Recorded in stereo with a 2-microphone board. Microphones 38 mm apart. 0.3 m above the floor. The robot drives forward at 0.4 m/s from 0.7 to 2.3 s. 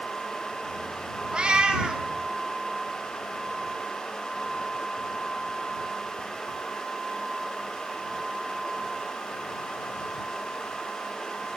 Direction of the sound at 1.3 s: 25° right (ahead or behind).